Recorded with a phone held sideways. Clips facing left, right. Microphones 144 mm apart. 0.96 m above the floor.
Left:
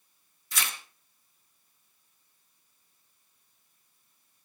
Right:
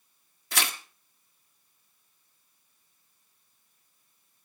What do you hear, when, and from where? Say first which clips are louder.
0.5 s tearing paper: right 4 dB; 70° right (ahead or behind), 1.3 m